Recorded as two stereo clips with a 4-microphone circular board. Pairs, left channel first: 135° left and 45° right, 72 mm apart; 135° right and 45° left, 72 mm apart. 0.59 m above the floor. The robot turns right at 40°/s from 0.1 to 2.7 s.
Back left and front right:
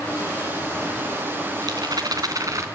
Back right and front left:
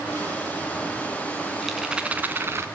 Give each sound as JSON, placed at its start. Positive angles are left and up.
{"t": 1.6, "sound": "a rattle", "azimuth_deg": -45, "distance_m": 2.5}